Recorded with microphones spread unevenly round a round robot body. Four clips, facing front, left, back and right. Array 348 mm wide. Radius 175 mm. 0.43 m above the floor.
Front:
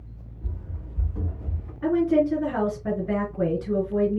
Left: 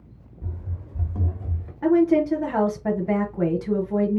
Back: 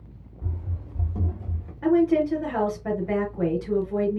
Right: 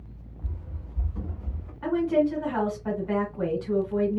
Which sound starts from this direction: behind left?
Running footsteps, at 0.4 s.